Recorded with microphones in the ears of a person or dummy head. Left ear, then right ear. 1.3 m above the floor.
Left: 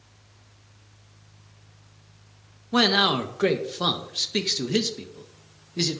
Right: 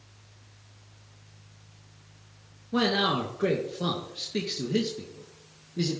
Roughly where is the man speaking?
Left.